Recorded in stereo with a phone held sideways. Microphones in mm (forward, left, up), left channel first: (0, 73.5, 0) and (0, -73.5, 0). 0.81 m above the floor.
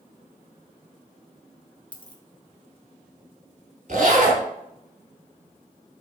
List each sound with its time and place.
1.9 s a dropped coin: 35° left (ahead or behind), 0.7 m
3.9 s a zipper: 60° right (ahead or behind), 1.6 m